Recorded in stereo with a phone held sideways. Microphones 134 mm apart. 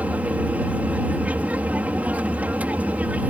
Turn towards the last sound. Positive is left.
turn(degrees=-10)  # may be behind; listen again after turning